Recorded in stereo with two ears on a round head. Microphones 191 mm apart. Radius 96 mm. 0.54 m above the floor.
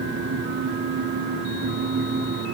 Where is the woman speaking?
No woman speaking in this recording.